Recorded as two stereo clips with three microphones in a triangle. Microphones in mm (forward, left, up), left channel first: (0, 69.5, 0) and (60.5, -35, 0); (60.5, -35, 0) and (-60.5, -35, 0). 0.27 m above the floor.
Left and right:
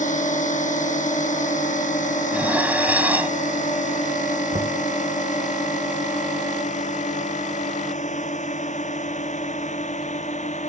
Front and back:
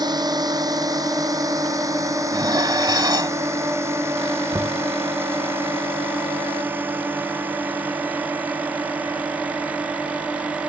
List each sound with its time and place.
0.0 s a drone: 125° left; by 10.7 s 100° left
2.3 s dishes clattering: 135° right
4.5 s knocking: 110° right